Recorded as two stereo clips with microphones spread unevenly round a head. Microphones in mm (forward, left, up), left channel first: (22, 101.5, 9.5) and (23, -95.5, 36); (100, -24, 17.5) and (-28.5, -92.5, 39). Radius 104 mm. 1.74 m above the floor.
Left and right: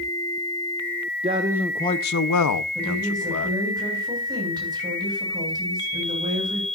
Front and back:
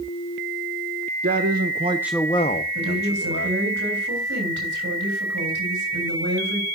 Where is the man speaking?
150° right, 1.2 m; by 3.6 s 70° left, 2.5 m.